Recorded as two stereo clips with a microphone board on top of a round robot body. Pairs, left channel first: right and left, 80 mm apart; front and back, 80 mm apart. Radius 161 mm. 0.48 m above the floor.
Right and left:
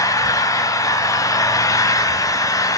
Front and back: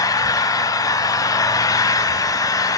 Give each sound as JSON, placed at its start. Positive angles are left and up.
{"t": 0.0, "sound": "an engine running", "azimuth_deg": -45, "distance_m": 0.9}